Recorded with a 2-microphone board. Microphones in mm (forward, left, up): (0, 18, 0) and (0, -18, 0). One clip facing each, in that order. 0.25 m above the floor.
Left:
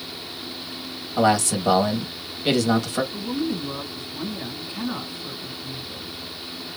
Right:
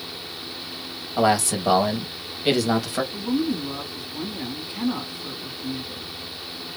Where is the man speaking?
5° right (ahead or behind), 0.9 m.